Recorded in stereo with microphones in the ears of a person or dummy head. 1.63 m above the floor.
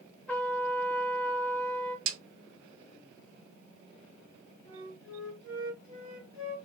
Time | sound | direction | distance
0.3 | a trumpet | 10° left (ahead or behind) | 0.7 m
2.1 | a snare drum | 85° right | 0.9 m
4.7 | a flute | 85° left | 1.4 m